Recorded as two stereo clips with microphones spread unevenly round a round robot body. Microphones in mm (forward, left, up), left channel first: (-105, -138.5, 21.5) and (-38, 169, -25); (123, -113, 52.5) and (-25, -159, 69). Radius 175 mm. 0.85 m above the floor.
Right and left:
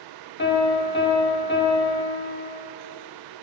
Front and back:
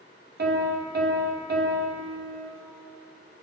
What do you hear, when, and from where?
0.4 s a piano: 160° right, 3 m